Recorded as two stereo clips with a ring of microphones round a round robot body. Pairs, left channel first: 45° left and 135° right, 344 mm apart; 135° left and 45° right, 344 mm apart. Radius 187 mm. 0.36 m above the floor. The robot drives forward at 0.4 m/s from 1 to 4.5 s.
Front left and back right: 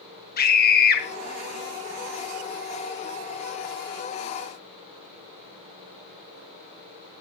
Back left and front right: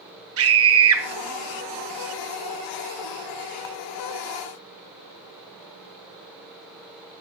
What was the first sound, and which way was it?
A scream, 10° right.